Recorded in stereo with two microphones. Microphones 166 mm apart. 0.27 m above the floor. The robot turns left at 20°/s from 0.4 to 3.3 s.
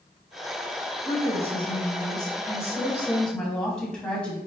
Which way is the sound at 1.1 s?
50° left.